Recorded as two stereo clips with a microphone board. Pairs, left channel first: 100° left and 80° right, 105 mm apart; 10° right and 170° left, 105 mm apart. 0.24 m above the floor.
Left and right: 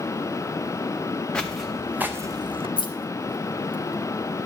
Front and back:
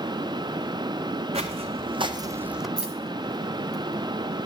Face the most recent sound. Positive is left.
turn(degrees=90)